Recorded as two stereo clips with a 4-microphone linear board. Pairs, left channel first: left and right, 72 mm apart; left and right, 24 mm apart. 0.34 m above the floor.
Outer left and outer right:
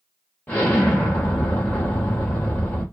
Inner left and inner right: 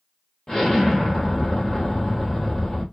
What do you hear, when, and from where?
0.5 s an explosion: 20° left (ahead or behind), 1.5 m